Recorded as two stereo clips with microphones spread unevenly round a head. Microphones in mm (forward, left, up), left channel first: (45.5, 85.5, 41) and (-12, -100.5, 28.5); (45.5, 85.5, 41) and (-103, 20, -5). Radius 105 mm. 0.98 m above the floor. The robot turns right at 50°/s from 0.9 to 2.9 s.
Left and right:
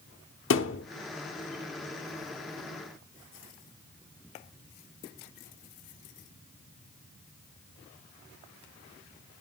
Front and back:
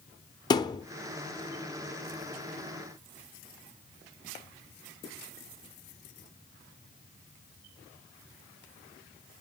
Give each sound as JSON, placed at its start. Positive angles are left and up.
{"t": 0.5, "sound": "a thud", "azimuth_deg": 75, "distance_m": 0.9}